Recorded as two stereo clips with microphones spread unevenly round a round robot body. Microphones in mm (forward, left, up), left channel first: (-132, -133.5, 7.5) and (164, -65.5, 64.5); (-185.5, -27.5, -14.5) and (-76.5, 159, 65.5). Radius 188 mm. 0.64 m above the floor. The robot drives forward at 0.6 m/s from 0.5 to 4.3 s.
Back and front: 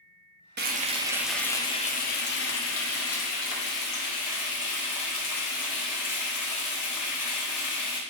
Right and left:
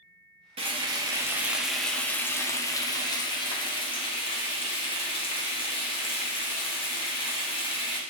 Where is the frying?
20° right, 0.9 m; by 8.0 s 175° right, 2 m.